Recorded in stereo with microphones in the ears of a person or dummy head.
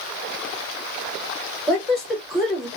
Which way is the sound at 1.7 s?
Centre (ahead or behind).